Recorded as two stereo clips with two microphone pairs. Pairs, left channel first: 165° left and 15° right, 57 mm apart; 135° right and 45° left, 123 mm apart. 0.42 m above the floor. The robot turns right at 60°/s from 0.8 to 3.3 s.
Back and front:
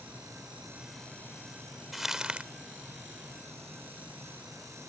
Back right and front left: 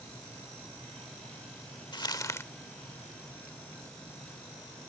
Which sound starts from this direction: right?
Crumpling, at 1.9 s.